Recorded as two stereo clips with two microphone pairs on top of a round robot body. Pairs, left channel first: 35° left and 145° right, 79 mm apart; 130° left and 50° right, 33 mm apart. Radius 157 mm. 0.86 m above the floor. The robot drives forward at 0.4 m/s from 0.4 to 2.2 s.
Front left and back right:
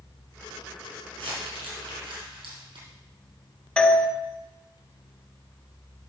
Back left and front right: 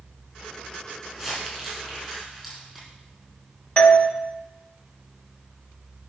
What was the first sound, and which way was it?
Crumpling, 145° right.